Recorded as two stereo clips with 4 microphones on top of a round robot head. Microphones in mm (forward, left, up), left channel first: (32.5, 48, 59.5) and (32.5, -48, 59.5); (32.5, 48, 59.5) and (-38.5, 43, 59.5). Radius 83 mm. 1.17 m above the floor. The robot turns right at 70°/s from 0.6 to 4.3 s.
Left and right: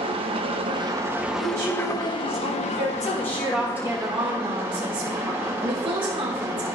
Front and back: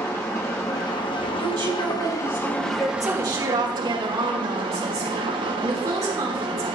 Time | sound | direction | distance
0.0 | an engine running | 60° right | 1.0 m
1.4 | a woman speaking | 165° right | 3.5 m
3.0 | a woman speaking | 140° left | 2.5 m